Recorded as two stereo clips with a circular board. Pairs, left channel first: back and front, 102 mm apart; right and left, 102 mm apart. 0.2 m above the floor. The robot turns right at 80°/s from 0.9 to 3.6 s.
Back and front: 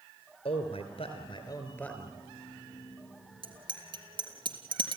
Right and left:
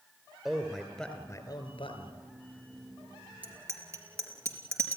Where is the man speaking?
175° left, 3.5 m; by 2.1 s 85° right, 3.5 m.